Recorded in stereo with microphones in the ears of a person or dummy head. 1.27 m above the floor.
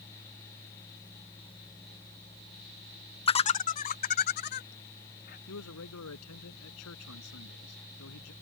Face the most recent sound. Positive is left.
turn(degrees=85)